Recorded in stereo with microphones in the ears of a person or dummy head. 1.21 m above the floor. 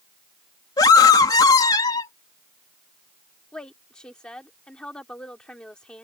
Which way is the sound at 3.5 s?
5° left (ahead or behind).